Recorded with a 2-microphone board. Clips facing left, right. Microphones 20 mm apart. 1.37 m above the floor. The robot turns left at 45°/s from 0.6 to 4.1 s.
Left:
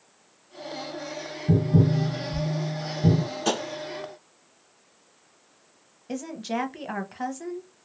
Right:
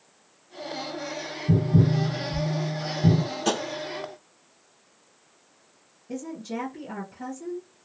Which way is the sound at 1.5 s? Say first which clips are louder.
Even; 80° left.